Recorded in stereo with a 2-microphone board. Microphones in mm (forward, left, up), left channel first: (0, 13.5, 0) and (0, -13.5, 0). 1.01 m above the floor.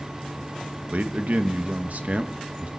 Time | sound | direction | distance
0.9 | a man speaking | 60° right (ahead or behind) | 1.1 m